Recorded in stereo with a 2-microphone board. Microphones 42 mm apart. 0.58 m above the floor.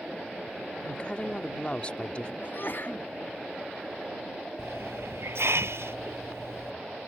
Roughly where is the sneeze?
Left.